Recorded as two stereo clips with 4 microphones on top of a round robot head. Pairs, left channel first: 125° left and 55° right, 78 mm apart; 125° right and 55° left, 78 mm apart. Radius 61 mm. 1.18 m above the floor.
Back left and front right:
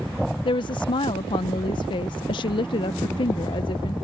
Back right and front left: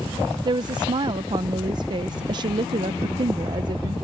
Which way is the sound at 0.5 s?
95° left.